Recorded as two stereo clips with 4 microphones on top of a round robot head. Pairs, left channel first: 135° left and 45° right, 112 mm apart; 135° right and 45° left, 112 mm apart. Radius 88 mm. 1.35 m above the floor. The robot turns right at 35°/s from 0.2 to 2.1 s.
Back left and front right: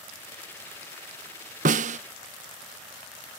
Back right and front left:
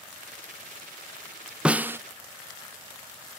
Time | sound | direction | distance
1.6 | a snare drum | 35° right | ?